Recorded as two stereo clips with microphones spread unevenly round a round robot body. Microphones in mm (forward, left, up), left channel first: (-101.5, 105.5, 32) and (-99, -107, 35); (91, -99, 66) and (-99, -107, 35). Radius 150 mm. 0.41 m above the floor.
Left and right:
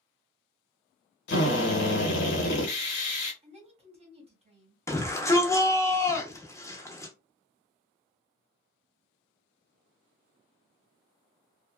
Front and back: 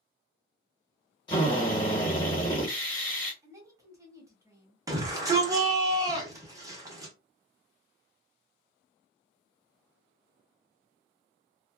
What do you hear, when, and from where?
1.3 s a drill: 75° left, 0.9 m
3.4 s a woman speaking: 130° right, 1.2 m
4.9 s a shout: 155° left, 1.1 m